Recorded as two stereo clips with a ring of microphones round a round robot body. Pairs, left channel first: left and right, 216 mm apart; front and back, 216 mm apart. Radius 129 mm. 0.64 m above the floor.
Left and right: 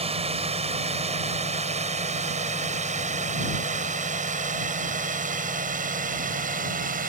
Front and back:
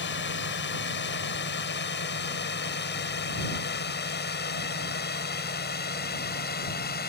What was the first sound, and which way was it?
A drone, 30° right.